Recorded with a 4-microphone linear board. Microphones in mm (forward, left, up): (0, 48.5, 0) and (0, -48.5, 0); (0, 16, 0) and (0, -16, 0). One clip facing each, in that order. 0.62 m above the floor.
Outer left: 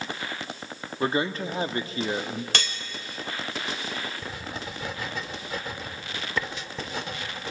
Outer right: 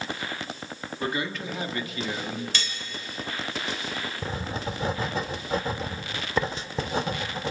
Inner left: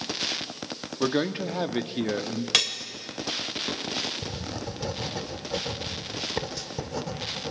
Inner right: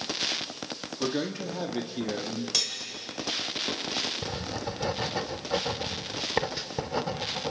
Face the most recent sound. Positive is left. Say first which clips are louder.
# outer right 4 dB, inner right 1 dB
turn(degrees=-35)  # may be behind; listen again after turning